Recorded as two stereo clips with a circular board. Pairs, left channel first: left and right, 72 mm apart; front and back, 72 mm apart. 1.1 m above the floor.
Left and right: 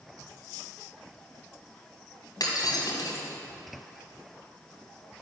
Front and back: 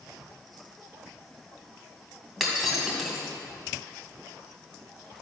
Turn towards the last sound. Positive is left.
turn(degrees=95)